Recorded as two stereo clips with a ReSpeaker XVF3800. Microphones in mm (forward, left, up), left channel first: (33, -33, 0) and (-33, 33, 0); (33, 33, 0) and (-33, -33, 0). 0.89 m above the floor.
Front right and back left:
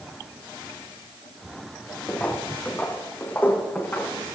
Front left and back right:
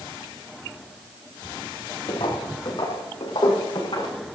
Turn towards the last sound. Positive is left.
turn(degrees=25)